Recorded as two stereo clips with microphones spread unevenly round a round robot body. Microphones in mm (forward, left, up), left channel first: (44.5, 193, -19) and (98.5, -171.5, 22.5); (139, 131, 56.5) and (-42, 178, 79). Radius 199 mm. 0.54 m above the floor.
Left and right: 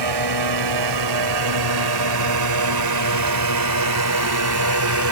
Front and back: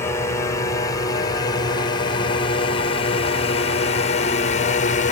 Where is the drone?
85° right; by 5.1 s 45° right.